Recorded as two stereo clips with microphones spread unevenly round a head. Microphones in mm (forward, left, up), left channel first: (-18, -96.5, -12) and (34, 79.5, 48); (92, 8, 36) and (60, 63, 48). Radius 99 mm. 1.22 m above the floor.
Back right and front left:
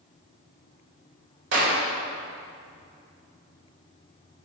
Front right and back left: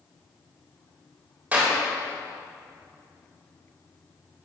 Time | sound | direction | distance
1.5 | a clap | 55° left | 3.5 m